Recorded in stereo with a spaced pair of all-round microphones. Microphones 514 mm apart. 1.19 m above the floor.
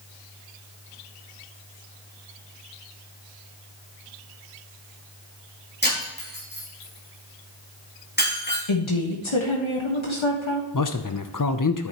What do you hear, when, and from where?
5.8 s breaking glass: 20° left (ahead or behind), 5.5 m
8.7 s a woman speaking: 65° left (ahead or behind), 1.5 m
10.7 s a man speaking: 40° left (ahead or behind), 0.6 m